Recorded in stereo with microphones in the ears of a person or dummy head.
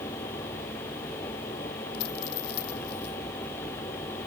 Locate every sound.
1.9 s a dropped coin: 60° left (ahead or behind)